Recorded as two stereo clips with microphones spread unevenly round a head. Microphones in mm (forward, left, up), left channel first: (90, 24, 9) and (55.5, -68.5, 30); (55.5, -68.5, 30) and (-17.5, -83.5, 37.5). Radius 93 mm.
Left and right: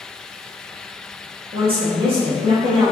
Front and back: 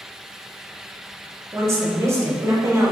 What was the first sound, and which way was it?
A woman speaking, 125° right.